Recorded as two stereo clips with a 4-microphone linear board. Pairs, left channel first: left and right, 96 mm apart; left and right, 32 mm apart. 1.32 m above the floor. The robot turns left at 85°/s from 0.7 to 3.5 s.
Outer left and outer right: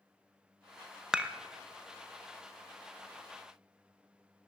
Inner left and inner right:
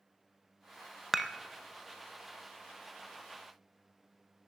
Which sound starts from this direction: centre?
Dishes clattering, at 1.1 s.